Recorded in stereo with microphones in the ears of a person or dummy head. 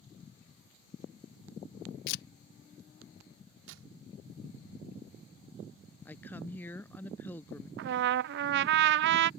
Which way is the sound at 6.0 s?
10° left (ahead or behind).